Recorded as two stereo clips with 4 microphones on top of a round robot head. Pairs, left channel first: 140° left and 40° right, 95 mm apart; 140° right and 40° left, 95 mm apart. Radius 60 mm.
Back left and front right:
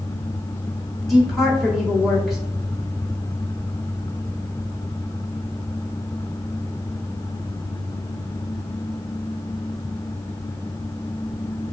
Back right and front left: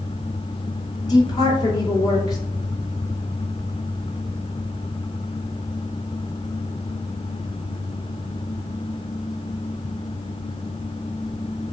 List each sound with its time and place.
1.1 s a woman speaking: 130° right, 2 m